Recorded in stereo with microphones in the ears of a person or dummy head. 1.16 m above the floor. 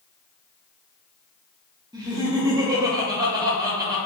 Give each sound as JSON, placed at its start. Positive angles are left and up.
{"t": 1.9, "sound": "laughter", "side_deg": -20, "distance_m": 0.9}